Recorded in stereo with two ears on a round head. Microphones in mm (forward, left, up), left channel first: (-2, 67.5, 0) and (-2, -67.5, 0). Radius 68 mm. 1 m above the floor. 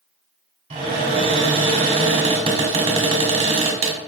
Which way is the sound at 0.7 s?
40° right (ahead or behind).